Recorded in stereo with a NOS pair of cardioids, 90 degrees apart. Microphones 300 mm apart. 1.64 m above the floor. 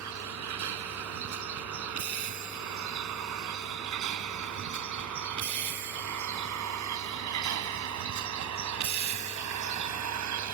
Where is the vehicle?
70° right; by 10.5 s 65° right.